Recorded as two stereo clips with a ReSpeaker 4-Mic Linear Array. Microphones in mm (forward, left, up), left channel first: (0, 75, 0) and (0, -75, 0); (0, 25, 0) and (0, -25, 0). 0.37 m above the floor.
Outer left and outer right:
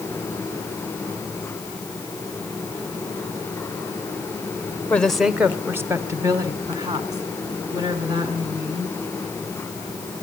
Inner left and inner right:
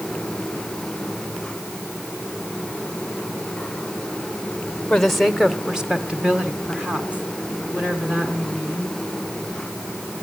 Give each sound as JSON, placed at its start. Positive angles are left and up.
{"t": 4.9, "sound": "a woman speaking", "side_deg": 10, "distance_m": 0.9}